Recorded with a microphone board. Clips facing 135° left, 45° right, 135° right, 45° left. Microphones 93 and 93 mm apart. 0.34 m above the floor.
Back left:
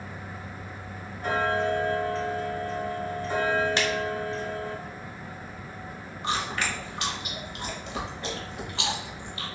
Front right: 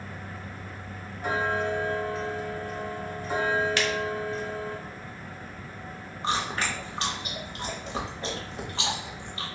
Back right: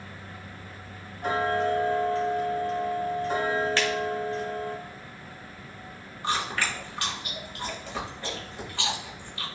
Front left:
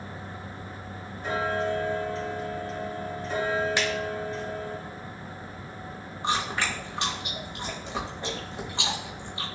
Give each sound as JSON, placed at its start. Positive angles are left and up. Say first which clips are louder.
{"t": 1.2, "sound": "ticking", "louder": "back left 2 dB, back right 2 dB", "azimuth_deg": -120, "distance_m": 1.3}
{"t": 3.8, "sound": "a finger snap", "louder": "back left 1 dB, back right 1 dB", "azimuth_deg": 105, "distance_m": 0.9}
{"t": 6.2, "sound": "chewing", "louder": "front right 1 dB, front left 1 dB", "azimuth_deg": -10, "distance_m": 1.0}